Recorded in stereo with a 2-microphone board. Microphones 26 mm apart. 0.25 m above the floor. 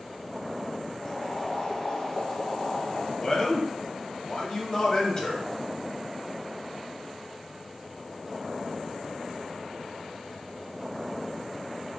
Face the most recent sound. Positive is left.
turn(degrees=30)  # may be behind; listen again after turning